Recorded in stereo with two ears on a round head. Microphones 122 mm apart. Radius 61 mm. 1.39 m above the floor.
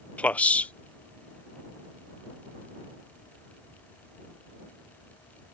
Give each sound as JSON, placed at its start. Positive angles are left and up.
{"t": 0.2, "sound": "a man speaking", "side_deg": 10}